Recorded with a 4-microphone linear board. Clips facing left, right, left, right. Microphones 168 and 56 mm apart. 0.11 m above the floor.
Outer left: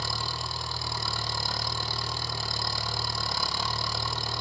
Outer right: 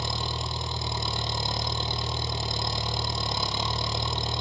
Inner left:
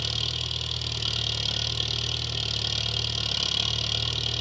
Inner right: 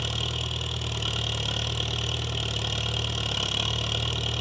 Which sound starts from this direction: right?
An engine running, at 0.0 s.